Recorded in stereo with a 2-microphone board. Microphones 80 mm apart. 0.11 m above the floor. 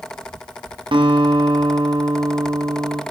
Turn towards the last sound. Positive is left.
turn(degrees=-75)  # may be behind; listen again after turning